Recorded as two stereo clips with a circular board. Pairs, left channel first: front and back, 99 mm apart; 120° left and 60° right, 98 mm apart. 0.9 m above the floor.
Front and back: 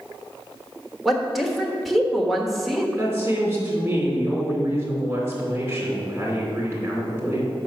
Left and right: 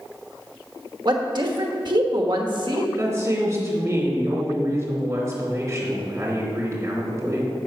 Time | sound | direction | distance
1.1 | a woman speaking | 90° right | 1.2 m
3.0 | a woman speaking | 120° right | 2.5 m